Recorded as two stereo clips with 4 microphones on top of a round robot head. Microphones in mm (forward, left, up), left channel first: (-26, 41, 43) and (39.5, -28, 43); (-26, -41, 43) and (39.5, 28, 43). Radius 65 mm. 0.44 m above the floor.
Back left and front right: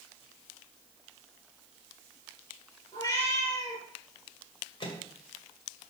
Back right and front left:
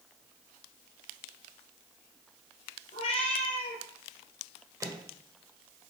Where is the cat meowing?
160° right, 3 m.